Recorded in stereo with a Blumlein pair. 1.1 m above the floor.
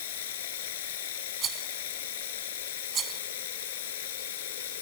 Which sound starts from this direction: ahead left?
Running water, at 0.0 s.